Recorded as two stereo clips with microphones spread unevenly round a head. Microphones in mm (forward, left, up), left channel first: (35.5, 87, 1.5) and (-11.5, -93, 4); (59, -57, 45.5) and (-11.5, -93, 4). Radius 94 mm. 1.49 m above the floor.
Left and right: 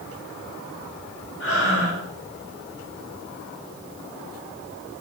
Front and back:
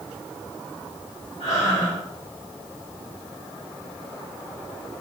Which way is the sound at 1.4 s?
60° left.